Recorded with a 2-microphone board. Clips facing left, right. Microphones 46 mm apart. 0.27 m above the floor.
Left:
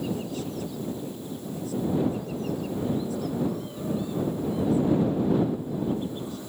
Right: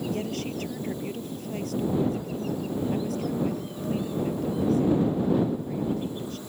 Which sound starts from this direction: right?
A woman speaking, at 0.1 s.